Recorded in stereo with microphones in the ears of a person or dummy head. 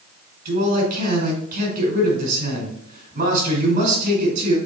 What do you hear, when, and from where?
0.5 s a man speaking: 40° right (ahead or behind), 4 m